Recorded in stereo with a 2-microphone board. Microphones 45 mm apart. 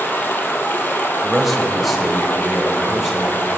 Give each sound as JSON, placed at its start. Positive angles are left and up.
{"t": 0.0, "sound": "running water", "side_deg": 50, "distance_m": 1.0}
{"t": 1.2, "sound": "a man speaking", "side_deg": 0, "distance_m": 0.9}